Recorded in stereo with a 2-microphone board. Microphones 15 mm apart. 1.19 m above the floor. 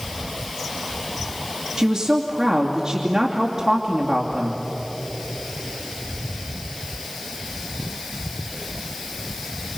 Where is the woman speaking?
35° right (ahead or behind), 2.5 m.